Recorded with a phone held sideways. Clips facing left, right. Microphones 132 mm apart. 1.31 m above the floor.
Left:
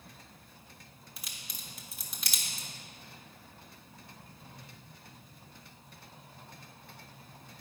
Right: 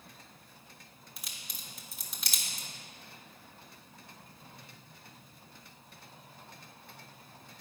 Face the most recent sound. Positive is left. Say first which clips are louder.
# even
turn(degrees=0)  # may be behind; listen again after turning